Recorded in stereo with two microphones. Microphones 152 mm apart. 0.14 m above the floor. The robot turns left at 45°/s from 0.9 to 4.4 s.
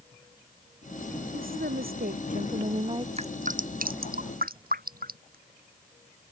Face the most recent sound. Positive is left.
turn(degrees=-75)  # may be behind; listen again after turning